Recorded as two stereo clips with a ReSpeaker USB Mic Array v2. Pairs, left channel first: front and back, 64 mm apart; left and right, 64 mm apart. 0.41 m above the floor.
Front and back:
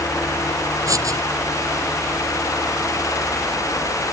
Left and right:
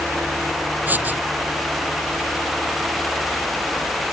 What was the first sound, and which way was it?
Writing, 150° right.